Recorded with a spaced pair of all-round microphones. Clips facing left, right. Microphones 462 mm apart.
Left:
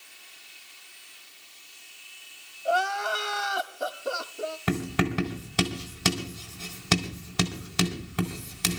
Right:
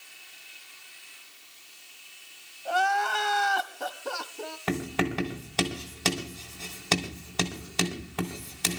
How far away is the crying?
About 0.9 m.